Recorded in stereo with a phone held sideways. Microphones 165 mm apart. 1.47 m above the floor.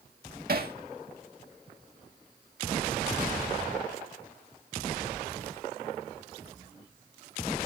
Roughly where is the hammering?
Right.